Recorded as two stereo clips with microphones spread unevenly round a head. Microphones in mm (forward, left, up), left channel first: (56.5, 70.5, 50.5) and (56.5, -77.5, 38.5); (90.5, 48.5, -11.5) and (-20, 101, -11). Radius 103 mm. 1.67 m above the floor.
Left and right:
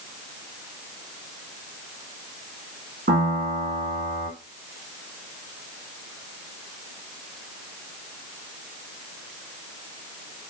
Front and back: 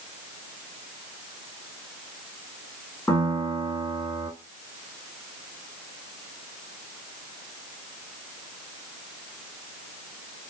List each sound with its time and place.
3.1 s a piano: 105° right, 2 m